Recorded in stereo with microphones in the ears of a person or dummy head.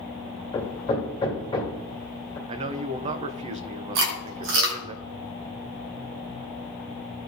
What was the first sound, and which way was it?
Hammering, 20° left (ahead or behind).